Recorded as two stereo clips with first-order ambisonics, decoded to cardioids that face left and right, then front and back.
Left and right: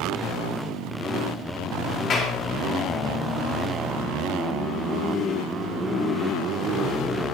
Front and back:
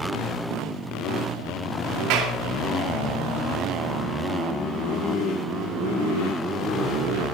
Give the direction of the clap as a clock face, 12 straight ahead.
7 o'clock.